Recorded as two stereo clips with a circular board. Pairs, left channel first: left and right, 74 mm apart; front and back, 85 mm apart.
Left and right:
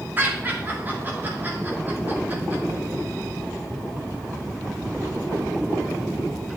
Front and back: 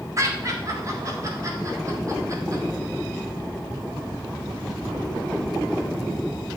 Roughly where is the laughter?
Behind right.